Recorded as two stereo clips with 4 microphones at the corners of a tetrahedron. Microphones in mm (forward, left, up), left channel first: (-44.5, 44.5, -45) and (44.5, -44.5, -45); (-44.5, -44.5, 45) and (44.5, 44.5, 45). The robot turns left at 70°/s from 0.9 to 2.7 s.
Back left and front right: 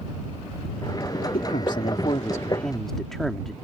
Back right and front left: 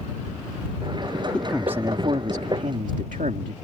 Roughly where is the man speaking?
Behind left.